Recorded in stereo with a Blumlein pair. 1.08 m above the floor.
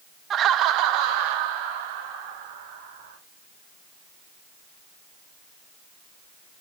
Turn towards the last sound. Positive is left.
turn(degrees=-45)